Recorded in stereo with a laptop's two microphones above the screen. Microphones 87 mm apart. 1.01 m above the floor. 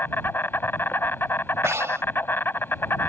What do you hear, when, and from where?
0.0 s an insect: 25° left (ahead or behind)
1.6 s breathing: 35° right (ahead or behind)